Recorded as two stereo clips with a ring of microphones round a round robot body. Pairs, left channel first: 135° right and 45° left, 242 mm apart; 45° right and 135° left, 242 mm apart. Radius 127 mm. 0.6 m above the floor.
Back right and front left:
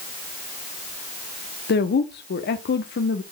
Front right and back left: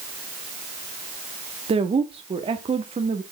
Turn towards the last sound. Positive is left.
turn(degrees=-165)